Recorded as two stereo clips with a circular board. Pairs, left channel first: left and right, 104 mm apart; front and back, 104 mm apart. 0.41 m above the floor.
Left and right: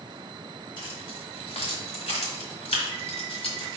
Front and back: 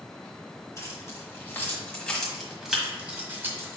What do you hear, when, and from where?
0.8 s keys jangling: 55° left, 1.7 m; by 3.8 s 120° left, 1.5 m